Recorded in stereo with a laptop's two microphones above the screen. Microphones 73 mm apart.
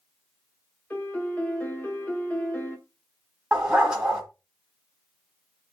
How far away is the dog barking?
About 1.4 m.